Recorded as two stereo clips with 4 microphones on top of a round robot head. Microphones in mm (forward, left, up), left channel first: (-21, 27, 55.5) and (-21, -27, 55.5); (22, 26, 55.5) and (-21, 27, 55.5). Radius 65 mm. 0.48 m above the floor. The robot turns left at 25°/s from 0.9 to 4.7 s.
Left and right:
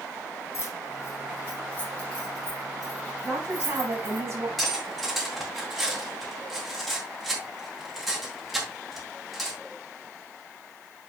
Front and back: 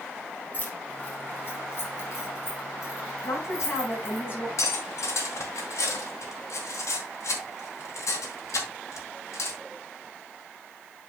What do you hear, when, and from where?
0.5 s keys jangling: 50° left, 5 m; by 4.2 s 35° right, 5 m
3.2 s a woman speaking: 15° right, 5.5 m; by 4.5 s 50° right, 5.5 m
4.6 s cutlery clinking: 5° left, 3 m; by 9.6 s straight ahead, 3 m